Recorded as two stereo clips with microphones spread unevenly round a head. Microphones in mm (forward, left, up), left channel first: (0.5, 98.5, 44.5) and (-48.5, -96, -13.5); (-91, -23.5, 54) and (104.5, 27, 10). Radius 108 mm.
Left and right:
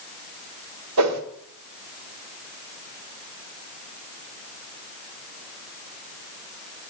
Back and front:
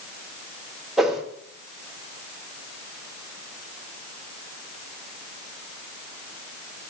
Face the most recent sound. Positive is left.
turn(degrees=-80)